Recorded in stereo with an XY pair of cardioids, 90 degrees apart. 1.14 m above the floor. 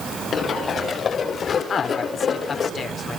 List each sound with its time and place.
0.3 s running footsteps: 60° left, 8 m
1.7 s a man speaking: 60° left, 4 m